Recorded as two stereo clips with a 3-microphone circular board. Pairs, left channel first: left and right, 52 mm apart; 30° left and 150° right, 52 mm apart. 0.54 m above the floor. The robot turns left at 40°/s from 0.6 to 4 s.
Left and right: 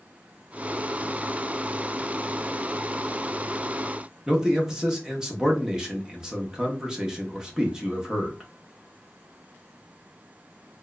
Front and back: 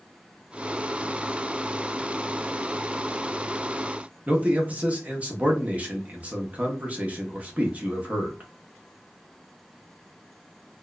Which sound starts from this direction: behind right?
A man speaking, at 4.3 s.